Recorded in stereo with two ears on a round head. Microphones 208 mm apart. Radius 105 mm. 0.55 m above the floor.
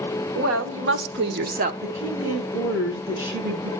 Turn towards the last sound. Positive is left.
turn(degrees=-10)  # may be behind; listen again after turning